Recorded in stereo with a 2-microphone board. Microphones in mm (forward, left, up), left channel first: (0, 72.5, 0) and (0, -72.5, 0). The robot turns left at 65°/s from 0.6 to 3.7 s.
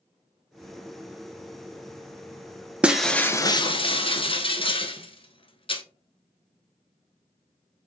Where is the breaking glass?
170° right, 0.6 m; by 5.8 s 135° left, 0.6 m.